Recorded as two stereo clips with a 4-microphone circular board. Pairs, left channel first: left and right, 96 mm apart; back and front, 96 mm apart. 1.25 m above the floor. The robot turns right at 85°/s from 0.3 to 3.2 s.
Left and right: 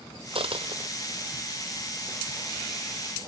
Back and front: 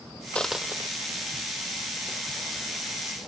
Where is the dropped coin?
100° right; by 0.9 s 55° right.